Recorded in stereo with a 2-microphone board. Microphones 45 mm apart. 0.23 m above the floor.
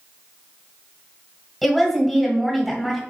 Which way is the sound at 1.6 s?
Centre (ahead or behind).